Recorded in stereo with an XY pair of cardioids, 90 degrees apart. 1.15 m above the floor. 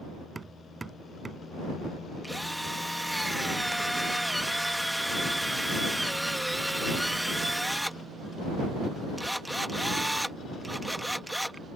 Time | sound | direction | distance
0.3 | hammering | 30° right | ?
2.2 | a drill | 5° right | ?